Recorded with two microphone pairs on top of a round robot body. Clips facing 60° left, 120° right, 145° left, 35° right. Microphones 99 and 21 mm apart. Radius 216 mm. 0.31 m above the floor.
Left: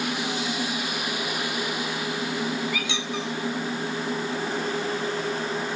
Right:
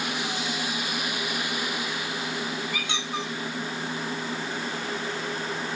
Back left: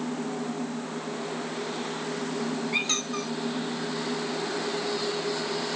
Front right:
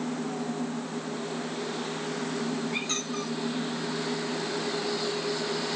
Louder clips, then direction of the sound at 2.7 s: Left 2 dB, back left 3 dB; 165° right.